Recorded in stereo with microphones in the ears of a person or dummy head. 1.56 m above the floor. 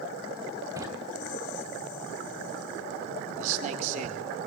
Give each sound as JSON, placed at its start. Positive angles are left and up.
{"t": 0.8, "sound": "a drawer", "side_deg": -20, "distance_m": 2.5}
{"t": 3.4, "sound": "a man speaking", "side_deg": -40, "distance_m": 4.0}